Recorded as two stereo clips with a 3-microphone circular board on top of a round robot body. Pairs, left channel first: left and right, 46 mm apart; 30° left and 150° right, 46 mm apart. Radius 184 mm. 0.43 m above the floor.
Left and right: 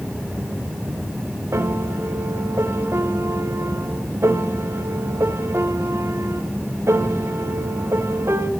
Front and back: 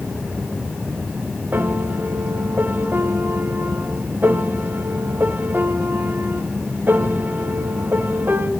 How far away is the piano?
About 2 m.